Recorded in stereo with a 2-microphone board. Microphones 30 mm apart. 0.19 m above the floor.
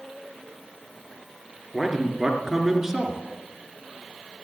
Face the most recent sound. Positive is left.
turn(degrees=-10)  # may be behind; listen again after turning